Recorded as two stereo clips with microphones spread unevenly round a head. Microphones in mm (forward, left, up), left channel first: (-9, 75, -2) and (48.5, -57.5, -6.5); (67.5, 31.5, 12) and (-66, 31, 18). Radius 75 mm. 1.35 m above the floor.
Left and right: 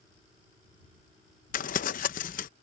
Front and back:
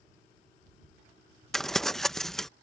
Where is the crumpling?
85° left.